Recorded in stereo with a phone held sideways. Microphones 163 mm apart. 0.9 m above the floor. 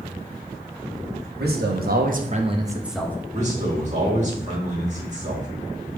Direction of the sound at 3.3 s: 45° right (ahead or behind).